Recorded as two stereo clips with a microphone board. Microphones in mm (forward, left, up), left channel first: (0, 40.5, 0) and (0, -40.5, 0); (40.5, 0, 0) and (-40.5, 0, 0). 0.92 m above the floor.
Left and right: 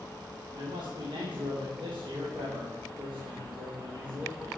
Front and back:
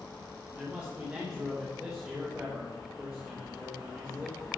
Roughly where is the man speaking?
Right.